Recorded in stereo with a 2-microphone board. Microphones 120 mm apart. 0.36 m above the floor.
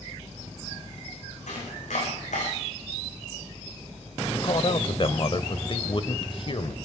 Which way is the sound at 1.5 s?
80° left.